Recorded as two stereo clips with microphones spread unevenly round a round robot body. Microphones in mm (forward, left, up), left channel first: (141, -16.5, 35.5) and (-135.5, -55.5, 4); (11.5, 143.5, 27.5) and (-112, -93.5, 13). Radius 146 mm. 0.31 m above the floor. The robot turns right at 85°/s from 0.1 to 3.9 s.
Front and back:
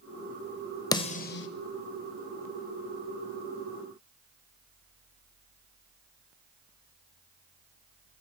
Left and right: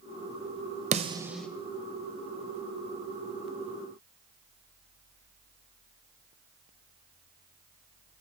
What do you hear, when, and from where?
0.9 s a snare drum: 70° right, 0.9 m; by 1.5 s 25° right, 0.9 m